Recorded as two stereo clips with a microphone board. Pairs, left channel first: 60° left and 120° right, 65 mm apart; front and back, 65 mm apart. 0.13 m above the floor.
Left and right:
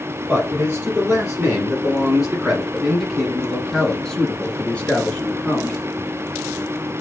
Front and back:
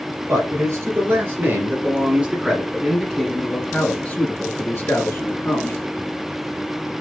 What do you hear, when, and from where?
0.3 s a man speaking: 175° right, 2.5 m; by 5.8 s straight ahead, 2.5 m